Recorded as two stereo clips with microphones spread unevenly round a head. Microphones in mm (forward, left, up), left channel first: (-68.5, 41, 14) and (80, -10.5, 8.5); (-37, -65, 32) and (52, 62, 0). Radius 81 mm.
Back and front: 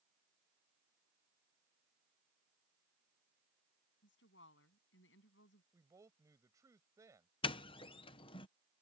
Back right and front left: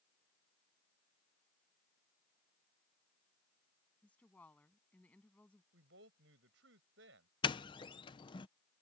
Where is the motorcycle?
I don't hear a motorcycle.